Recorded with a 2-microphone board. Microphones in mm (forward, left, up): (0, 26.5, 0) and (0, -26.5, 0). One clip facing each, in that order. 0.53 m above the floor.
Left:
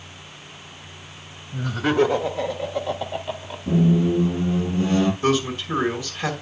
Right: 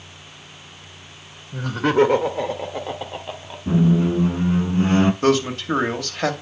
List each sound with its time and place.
1.5 s laughter: 55° right (ahead or behind), 2.5 m; by 3.6 s 5° right (ahead or behind), 1.7 m
3.7 s a squeak: 45° right (ahead or behind), 1.0 m
5.2 s a man speaking: 70° right (ahead or behind), 2.5 m